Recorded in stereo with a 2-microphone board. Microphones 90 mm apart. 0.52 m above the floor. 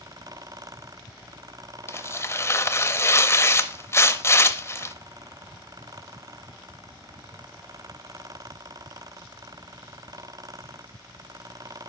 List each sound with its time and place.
1.9 s tearing paper: 30° left (ahead or behind), 0.6 m